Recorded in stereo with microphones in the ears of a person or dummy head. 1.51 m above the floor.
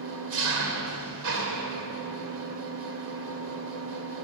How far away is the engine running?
About 2.5 m.